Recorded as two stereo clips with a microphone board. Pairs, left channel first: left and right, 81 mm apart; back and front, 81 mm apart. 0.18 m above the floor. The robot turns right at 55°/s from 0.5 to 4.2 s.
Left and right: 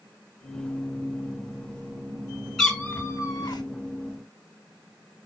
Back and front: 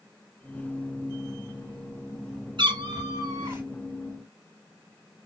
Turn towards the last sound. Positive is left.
turn(degrees=95)